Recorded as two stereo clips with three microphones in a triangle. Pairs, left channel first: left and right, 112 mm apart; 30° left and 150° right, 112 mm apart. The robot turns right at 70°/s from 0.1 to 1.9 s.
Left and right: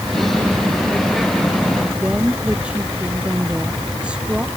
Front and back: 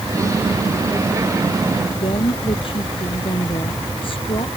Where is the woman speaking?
10° right.